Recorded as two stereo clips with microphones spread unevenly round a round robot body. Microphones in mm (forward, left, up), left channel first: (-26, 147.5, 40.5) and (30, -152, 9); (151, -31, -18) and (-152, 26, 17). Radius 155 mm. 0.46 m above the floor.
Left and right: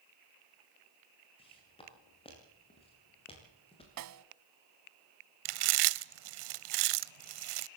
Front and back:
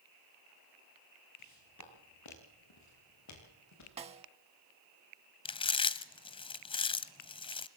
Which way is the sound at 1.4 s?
30° left.